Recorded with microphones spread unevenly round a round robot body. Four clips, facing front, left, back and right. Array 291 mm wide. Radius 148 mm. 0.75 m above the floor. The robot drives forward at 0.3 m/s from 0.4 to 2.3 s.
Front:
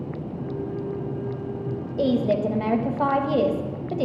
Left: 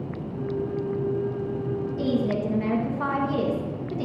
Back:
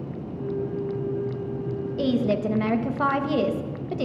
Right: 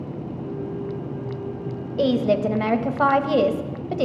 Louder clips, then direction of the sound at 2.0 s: Right 7 dB, front 2 dB; 155° right.